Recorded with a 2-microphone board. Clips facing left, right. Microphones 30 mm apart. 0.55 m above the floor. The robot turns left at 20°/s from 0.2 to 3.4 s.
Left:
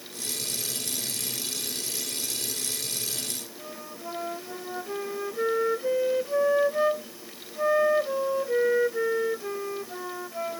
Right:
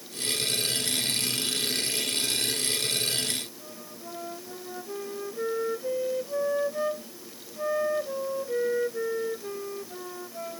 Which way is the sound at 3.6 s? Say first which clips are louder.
Left 4 dB; 35° left (ahead or behind).